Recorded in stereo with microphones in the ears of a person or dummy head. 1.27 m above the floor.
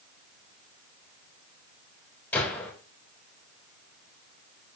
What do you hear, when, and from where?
2.3 s a gunshot: 10° left (ahead or behind), 4 m